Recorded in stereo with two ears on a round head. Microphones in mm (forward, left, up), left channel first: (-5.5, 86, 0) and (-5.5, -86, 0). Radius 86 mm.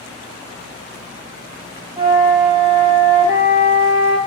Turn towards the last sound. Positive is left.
turn(degrees=-20)  # may be behind; listen again after turning